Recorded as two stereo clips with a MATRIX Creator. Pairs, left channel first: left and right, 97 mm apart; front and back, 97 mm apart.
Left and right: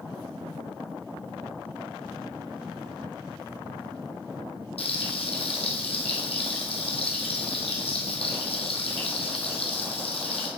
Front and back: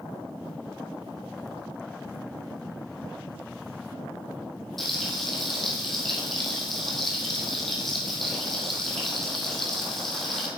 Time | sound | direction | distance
4.8 | frying | 90° left | 1.7 m